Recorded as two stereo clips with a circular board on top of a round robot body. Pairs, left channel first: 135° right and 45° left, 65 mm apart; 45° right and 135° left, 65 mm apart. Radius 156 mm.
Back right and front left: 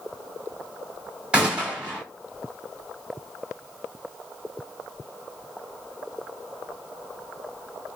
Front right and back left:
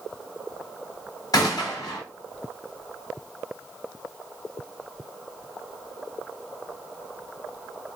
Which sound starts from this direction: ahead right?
A gunshot, at 1.3 s.